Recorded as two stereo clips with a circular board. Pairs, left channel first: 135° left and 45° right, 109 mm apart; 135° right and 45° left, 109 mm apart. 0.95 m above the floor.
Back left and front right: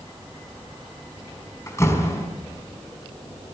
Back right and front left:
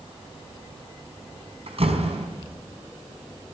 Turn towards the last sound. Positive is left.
turn(degrees=70)